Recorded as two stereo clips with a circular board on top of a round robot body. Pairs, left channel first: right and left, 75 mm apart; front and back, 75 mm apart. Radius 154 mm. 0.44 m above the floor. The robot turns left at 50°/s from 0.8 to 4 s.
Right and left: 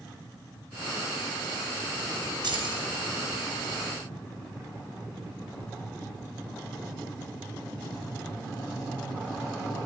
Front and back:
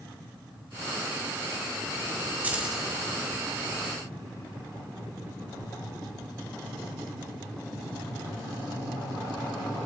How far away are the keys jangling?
About 2.5 m.